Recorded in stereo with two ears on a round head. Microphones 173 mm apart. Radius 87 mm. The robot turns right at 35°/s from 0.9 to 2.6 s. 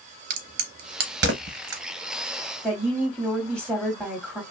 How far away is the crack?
About 0.7 m.